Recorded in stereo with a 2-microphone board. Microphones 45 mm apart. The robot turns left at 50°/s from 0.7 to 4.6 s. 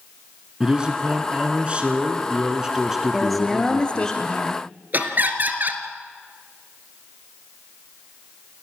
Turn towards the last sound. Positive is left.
turn(degrees=-45)  # may be behind; listen again after turning